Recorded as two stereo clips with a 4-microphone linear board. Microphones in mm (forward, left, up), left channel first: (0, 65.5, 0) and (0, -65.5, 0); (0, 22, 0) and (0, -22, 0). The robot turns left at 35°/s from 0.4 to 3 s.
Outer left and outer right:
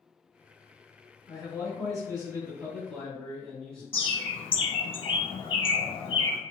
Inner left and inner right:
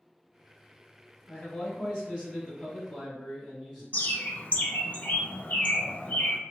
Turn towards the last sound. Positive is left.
turn(degrees=45)  # may be behind; listen again after turning